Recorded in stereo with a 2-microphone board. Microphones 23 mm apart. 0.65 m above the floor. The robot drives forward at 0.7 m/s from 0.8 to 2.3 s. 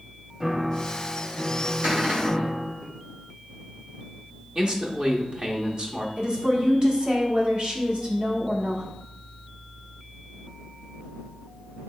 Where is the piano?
15° right (ahead or behind), 0.6 m; by 2.8 s 5° right (ahead or behind), 1.6 m.